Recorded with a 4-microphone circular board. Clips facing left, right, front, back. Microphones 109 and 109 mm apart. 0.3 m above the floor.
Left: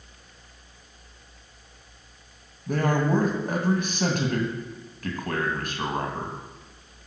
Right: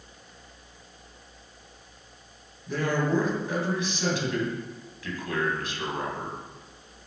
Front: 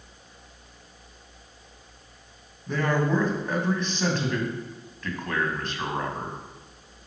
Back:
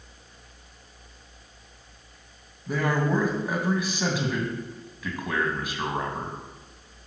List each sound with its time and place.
2.7 s a man speaking: 100° left, 2.5 m